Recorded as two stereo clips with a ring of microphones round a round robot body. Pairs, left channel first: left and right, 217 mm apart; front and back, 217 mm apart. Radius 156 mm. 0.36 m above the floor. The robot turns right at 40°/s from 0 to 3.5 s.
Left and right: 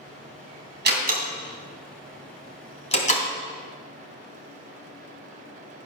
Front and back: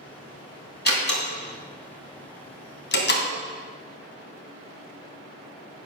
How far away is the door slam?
About 2.5 m.